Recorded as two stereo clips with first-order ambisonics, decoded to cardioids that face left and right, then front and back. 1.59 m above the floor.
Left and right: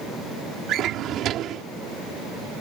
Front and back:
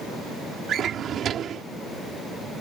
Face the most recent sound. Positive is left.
turn(degrees=-130)